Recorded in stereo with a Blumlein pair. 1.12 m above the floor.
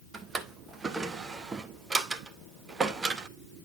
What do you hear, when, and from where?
0.1 s a drawer: 15° right, 0.8 m